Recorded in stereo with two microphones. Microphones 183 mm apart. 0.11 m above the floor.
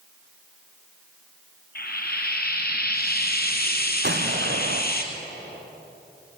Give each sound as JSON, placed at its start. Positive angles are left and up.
{"t": 1.8, "sound": "frying", "side_deg": 60, "distance_m": 2.0}
{"t": 4.0, "sound": "an explosion", "side_deg": -75, "distance_m": 2.0}